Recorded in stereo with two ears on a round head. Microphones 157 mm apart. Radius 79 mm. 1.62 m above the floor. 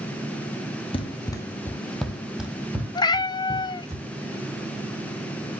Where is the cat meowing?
25° left (ahead or behind), 0.8 m.